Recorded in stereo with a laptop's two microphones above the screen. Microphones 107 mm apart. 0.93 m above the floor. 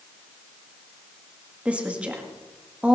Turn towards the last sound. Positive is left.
turn(degrees=-10)  # may be behind; listen again after turning